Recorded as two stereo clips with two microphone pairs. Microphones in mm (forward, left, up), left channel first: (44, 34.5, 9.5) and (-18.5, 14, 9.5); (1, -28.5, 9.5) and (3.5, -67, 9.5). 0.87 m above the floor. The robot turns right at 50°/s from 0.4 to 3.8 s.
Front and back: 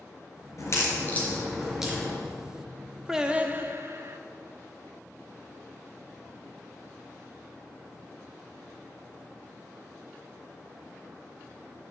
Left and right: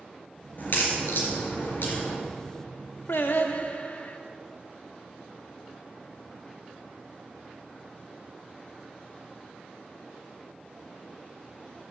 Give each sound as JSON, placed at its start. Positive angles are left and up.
{"t": 0.6, "sound": "a crack", "azimuth_deg": 50, "distance_m": 3.5}
{"t": 3.1, "sound": "singing", "azimuth_deg": 115, "distance_m": 0.8}